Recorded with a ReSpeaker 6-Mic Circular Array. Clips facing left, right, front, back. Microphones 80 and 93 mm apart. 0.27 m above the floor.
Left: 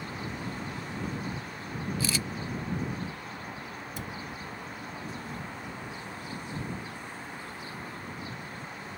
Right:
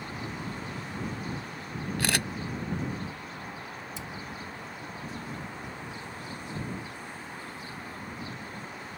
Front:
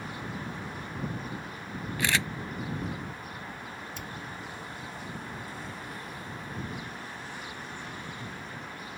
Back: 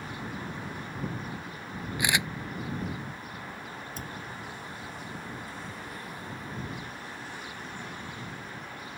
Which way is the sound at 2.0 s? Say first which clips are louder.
Right 4 dB, even; 105° right.